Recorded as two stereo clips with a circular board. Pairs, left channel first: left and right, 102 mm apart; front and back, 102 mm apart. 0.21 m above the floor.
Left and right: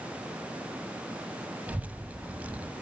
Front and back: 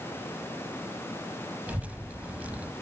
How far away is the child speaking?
About 0.5 m.